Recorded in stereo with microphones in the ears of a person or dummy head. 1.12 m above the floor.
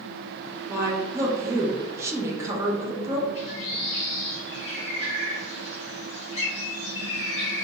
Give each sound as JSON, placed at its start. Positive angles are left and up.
{"t": 0.7, "sound": "a woman speaking", "side_deg": -20, "distance_m": 0.7}
{"t": 3.4, "sound": "a bird", "side_deg": 35, "distance_m": 0.8}